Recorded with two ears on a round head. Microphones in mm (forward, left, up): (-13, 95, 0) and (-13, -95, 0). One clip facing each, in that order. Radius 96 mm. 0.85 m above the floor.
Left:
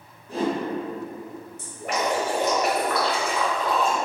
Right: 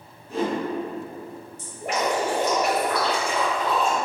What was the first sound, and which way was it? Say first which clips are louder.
A whoosh: even; 30° left (ahead or behind).